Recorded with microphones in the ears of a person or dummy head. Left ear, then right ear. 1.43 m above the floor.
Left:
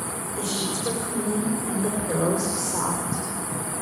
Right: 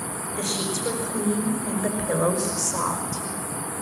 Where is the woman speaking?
5° right (ahead or behind), 6.5 m; by 3.3 s 10° right (ahead or behind), 4.5 m.